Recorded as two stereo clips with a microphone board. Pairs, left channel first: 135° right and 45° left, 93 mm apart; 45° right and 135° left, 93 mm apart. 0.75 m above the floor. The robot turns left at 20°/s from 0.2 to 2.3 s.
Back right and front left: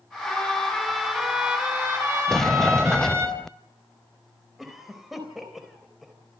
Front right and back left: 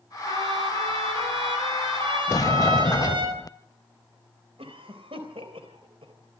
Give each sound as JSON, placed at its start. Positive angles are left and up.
{"t": 0.3, "sound": "a trumpet", "azimuth_deg": 145, "distance_m": 8.0}
{"t": 2.3, "sound": "a sliding door", "azimuth_deg": -55, "distance_m": 0.6}
{"t": 4.6, "sound": "a cough", "azimuth_deg": 130, "distance_m": 3.5}